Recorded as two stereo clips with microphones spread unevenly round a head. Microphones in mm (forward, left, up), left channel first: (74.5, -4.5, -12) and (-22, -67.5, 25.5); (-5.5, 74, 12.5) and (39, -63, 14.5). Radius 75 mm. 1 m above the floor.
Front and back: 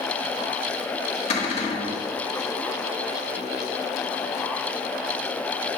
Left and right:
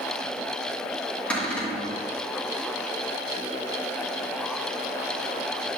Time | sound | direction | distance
1.3 | a cupboard door | 25° left | 1.9 m